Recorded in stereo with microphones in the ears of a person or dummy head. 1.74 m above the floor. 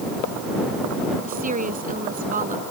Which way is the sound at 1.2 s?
40° right (ahead or behind).